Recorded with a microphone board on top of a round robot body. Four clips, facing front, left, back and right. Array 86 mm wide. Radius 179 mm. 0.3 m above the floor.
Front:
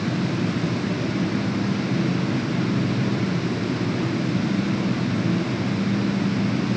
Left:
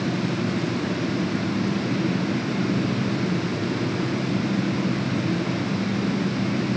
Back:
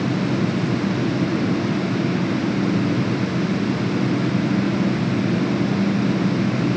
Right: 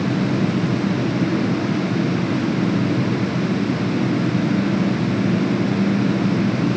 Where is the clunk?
I don't hear a clunk.